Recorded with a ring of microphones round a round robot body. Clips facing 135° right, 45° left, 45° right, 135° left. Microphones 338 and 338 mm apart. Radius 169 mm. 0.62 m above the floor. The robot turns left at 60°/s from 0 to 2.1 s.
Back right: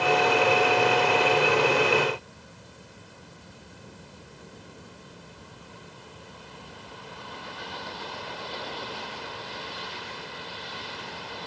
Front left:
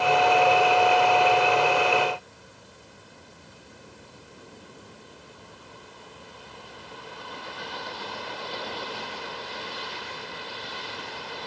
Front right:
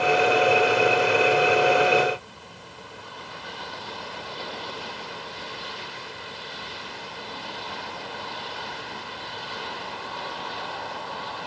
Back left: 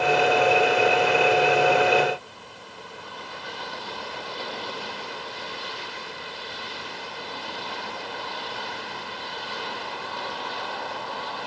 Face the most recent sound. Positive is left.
No sound to turn to.